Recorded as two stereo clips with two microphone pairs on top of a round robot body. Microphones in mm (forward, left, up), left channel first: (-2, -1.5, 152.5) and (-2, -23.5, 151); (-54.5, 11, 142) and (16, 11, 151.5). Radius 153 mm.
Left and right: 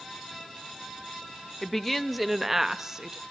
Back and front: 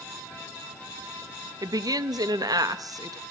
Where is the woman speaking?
15° left, 1.2 m; by 3.2 s 30° right, 1.6 m.